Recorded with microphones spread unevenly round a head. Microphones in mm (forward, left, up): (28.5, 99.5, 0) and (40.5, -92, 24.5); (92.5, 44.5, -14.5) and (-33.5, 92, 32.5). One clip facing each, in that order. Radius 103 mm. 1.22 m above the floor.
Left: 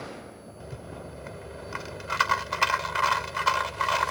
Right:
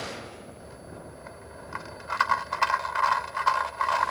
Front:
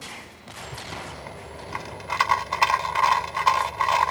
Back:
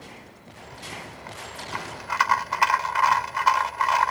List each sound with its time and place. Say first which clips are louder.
0.6 s a rattle: left 3 dB, front 3 dB; 45° left